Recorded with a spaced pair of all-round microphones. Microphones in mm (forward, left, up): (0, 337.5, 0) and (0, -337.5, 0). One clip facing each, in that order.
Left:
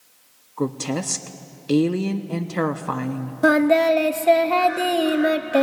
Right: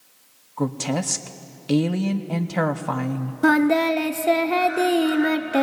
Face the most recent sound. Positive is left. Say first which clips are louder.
# left 1 dB
turn(degrees=10)  # may be behind; listen again after turning